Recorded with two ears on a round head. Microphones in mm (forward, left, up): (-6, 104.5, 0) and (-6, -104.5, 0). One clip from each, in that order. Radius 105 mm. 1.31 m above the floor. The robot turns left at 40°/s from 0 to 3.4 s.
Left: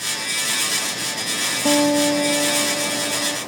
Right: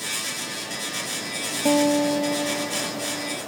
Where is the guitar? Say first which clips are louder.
Left 2 dB; 170° right; by 3.4 s 120° left.